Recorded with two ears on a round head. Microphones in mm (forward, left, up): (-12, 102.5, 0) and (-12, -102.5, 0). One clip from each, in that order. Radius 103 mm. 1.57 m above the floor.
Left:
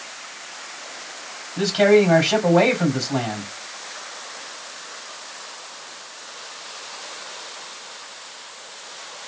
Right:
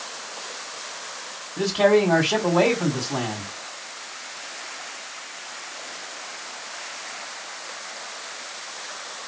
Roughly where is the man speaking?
Left.